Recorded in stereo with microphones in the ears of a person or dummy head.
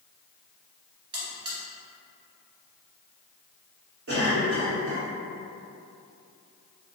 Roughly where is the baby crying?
I don't hear a baby crying.